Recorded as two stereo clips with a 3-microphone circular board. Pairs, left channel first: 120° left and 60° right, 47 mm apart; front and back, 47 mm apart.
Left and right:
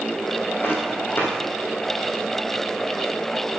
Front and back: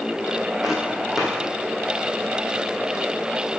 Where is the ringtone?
I don't hear a ringtone.